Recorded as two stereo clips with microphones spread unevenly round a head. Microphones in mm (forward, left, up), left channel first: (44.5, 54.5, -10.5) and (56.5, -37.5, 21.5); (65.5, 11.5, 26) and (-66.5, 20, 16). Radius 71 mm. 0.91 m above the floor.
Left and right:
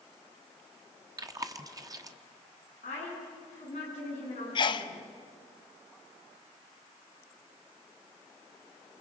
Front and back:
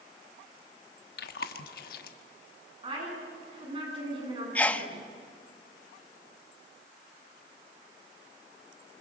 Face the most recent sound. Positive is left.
turn(degrees=75)